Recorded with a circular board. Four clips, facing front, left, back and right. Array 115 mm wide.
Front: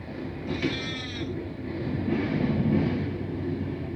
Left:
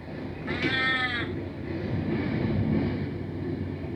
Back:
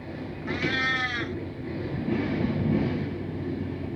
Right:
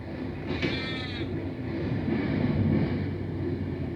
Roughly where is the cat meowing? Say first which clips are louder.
Left 4 dB, back 2 dB; behind left.